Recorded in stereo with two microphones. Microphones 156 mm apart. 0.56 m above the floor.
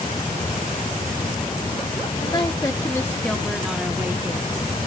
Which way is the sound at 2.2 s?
30° left (ahead or behind).